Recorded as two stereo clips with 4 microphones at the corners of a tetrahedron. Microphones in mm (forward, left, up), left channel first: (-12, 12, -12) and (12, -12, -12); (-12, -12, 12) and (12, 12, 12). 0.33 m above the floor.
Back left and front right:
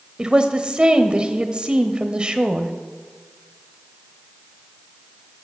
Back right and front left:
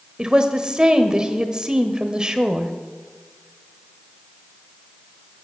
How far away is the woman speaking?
About 1.1 m.